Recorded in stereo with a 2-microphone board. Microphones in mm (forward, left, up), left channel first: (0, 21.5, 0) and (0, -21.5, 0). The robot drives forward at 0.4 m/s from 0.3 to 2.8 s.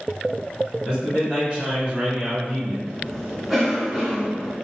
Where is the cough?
5° right (ahead or behind), 1.2 m.